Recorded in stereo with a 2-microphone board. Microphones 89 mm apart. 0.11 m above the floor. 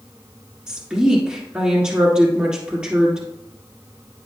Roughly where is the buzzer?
No buzzer in this recording.